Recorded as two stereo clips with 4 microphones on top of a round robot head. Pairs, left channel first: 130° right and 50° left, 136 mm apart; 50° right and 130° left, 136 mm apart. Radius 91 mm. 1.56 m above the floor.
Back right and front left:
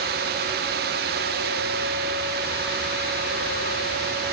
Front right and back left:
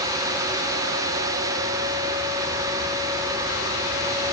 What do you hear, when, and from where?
Only background noise.